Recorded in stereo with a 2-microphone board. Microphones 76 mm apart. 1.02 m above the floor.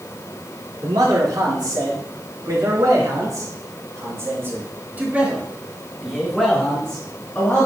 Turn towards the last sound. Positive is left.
turn(degrees=25)  # may be behind; listen again after turning